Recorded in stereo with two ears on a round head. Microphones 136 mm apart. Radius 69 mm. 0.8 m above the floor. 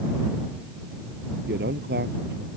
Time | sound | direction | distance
1.5 | a man speaking | 75° right (ahead or behind) | ?